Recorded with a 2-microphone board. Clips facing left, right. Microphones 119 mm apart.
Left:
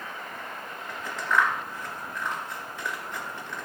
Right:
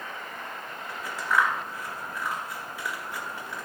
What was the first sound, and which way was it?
Scissors, 10° right (ahead or behind).